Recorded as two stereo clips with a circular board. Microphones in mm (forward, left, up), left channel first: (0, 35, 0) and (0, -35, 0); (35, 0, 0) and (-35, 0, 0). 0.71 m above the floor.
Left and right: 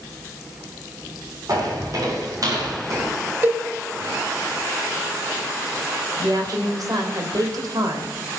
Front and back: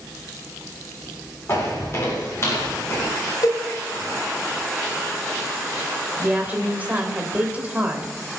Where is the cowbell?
30° right, 3.5 m.